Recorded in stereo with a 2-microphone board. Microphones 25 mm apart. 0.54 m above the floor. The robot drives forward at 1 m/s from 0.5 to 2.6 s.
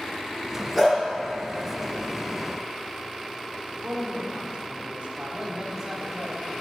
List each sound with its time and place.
0.8 s a dog barking: 5° left (ahead or behind), 3 m; by 1.0 s 10° left (ahead or behind), 3 m
3.7 s a woman speaking: 45° right (ahead or behind), 1.4 m
5.3 s a man speaking: 20° right (ahead or behind), 1.5 m